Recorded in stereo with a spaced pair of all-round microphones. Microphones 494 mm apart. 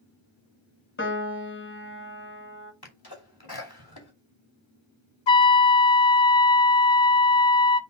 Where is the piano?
25° left (ahead or behind), 0.9 m.